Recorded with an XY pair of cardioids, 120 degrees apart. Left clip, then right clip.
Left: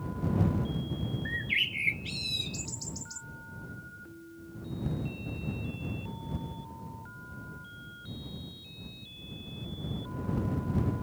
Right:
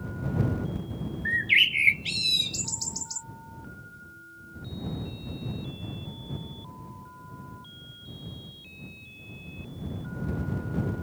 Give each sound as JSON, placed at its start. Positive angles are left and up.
{"t": 1.2, "sound": "a bird", "azimuth_deg": -45}